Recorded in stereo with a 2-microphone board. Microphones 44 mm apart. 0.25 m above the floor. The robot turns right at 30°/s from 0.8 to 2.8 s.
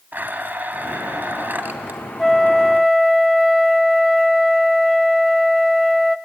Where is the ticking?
I don't hear ticking.